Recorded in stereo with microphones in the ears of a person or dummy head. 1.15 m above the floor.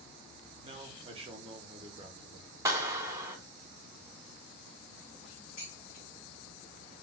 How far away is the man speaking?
About 0.5 m.